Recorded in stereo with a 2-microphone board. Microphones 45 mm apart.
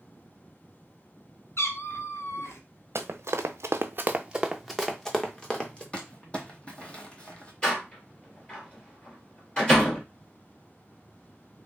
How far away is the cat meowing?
About 0.7 m.